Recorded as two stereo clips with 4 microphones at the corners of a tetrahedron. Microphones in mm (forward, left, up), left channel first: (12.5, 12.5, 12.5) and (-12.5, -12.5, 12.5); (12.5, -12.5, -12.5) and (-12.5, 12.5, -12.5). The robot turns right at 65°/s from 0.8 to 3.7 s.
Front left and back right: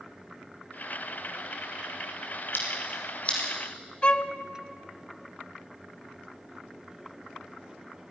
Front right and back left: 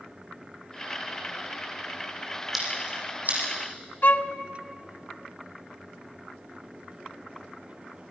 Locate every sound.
2.5 s scissors: 50° left, 7 m; by 3.4 s 105° left, 7 m
4.0 s a violin: 10° right, 0.7 m